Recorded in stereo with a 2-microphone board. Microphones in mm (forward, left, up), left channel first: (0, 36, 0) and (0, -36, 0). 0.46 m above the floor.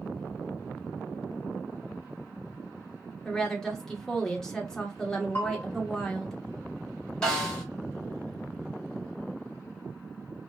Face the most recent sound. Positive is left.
turn(degrees=10)  # may be behind; listen again after turning